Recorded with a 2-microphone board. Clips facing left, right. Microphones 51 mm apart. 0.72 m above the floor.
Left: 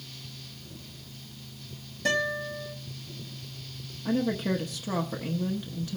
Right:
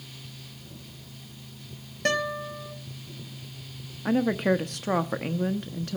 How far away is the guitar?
About 3.5 m.